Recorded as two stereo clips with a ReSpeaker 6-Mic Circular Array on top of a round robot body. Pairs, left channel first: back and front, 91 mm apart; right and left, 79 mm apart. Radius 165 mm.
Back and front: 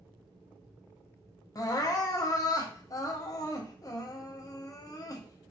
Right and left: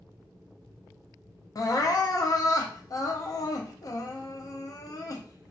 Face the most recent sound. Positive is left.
turn(degrees=-130)